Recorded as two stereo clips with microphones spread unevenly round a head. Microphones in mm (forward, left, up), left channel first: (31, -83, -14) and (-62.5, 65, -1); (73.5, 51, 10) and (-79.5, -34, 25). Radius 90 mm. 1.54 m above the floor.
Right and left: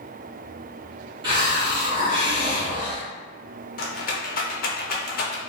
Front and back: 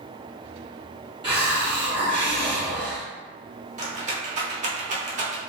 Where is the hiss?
165° left, 1.6 m.